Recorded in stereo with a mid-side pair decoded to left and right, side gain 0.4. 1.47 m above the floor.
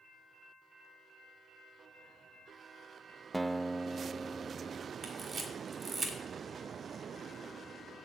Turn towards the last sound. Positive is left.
turn(degrees=-45)